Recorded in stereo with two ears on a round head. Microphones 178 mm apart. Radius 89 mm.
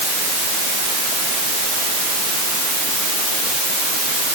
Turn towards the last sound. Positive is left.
No sound to turn to.